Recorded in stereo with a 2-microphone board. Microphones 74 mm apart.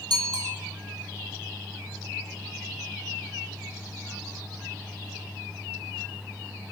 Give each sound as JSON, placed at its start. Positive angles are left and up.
{"t": 0.1, "sound": "a bicycle bell", "side_deg": -70, "distance_m": 5.0}